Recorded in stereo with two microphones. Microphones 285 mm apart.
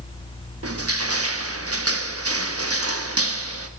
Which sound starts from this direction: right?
Crushing, at 0.6 s.